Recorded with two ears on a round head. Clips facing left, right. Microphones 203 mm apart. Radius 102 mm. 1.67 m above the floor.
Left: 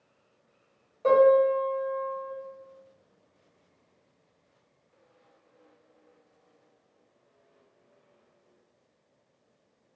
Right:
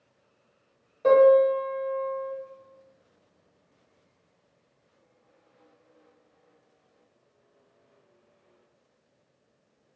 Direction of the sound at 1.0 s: 20° right (ahead or behind).